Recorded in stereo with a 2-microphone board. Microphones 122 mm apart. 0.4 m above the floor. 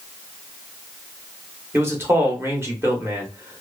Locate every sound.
1.7 s a man speaking: 20° right (ahead or behind), 0.9 m